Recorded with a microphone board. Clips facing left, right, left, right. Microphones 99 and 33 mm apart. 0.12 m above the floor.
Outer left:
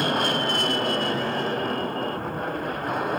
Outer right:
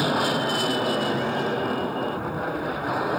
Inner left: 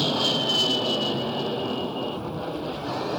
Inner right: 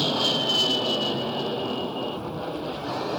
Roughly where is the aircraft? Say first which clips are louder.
Outer right 1 dB, even; centre.